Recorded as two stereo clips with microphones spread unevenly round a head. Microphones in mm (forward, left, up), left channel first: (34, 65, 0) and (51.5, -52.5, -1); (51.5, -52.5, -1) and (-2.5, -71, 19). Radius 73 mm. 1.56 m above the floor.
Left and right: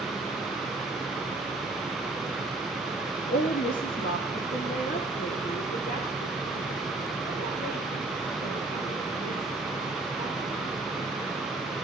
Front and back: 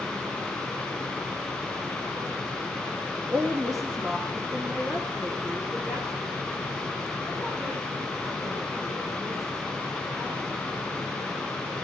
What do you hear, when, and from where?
3.3 s a woman speaking: 125° left, 2.5 m; by 11.7 s 105° left, 11 m